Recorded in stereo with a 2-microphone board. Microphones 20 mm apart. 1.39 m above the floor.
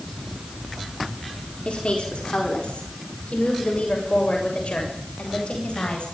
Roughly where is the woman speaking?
Left.